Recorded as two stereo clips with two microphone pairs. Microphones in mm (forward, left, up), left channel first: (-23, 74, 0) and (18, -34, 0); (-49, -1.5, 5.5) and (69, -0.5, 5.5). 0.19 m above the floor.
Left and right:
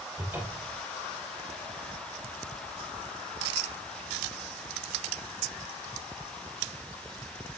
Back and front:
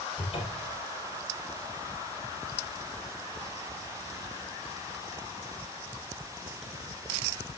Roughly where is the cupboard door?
Behind right.